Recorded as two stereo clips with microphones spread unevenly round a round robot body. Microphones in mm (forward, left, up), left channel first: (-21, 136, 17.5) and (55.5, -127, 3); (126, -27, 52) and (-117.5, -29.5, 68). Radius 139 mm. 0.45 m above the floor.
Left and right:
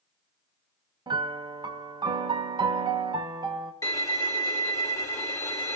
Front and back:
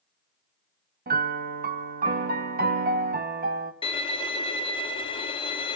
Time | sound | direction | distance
1.1 | a piano | 140° right | 0.8 m
3.8 | a violin | 35° left | 1.2 m